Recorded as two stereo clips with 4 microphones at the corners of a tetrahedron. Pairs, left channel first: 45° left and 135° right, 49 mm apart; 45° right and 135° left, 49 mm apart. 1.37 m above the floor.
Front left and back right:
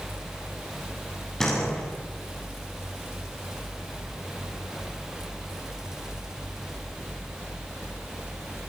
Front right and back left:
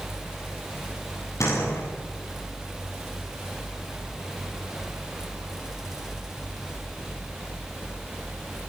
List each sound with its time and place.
1.4 s a door slam: 35° right, 7.5 m